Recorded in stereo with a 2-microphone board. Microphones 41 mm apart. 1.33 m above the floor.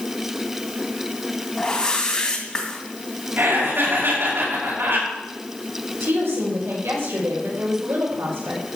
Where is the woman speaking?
85° right, 5.5 m.